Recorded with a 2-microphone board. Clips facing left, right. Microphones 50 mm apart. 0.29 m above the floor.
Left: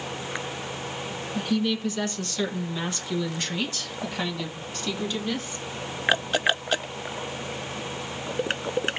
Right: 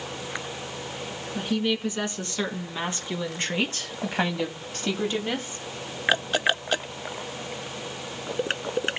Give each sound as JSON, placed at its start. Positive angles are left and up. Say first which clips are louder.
{"t": 1.4, "sound": "a woman speaking", "louder": "even", "side_deg": -20, "distance_m": 3.0}